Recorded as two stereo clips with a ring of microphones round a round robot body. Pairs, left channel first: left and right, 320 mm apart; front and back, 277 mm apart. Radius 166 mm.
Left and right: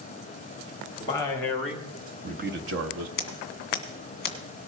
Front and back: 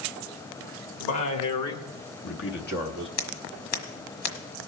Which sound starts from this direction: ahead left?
Scissors, at 3.2 s.